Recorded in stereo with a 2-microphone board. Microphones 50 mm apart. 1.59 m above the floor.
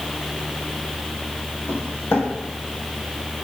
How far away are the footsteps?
About 4 m.